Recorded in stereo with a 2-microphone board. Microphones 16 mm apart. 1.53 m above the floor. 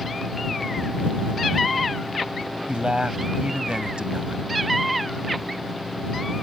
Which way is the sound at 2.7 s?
80° right.